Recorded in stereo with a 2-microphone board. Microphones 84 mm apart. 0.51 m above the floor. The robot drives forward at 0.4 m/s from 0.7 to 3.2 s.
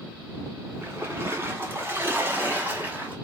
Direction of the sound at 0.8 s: 30° right (ahead or behind).